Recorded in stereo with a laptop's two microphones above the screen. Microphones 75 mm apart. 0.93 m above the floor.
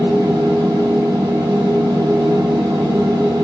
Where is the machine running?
60° right (ahead or behind), 0.7 m.